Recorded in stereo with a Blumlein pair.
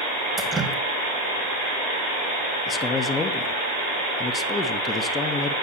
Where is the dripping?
15° right, 1.7 m.